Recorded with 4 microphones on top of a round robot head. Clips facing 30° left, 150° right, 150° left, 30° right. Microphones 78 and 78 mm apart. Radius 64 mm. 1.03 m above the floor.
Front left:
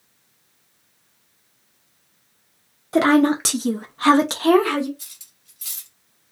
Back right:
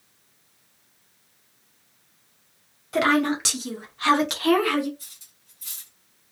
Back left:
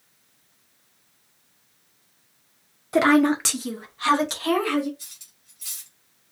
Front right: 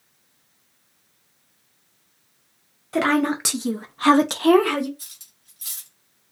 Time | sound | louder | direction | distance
2.9 | a woman speaking | front left 5 dB, back left 3 dB | 80° left | 0.6 m
5.0 | cutlery clinking | front left 2 dB, front right 1 dB | 15° left | 0.9 m